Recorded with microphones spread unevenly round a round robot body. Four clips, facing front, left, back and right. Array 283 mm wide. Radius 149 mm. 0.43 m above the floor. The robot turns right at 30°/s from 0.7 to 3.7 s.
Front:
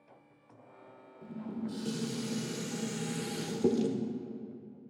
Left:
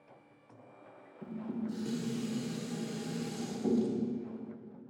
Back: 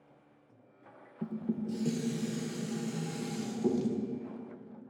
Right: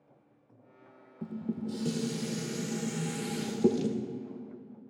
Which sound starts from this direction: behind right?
Dishes clattering, at 1.2 s.